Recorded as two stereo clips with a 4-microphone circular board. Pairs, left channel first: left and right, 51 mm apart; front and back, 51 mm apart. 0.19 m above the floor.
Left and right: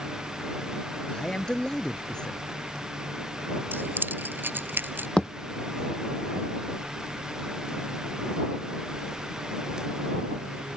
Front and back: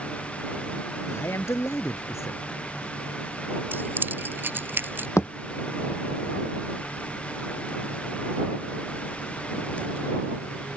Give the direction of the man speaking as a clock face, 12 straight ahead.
12 o'clock.